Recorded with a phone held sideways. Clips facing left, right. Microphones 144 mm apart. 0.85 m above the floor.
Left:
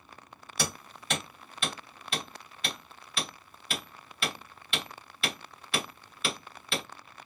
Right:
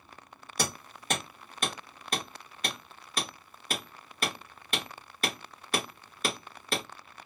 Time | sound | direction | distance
0.6 | hammering | 45° right (ahead or behind) | 1.4 m